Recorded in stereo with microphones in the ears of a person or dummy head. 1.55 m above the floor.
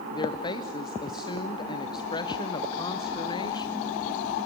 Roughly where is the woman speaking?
Left.